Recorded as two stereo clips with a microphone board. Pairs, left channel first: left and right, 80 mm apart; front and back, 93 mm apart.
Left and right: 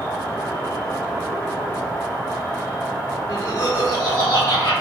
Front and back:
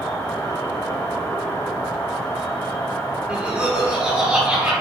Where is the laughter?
115° left, 0.9 m.